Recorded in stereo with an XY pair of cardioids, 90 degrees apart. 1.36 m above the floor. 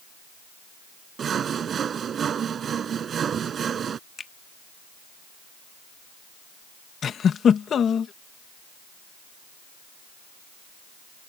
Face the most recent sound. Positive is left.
turn(degrees=60)